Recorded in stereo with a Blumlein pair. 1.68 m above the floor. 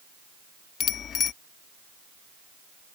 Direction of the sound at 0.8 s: 25° left.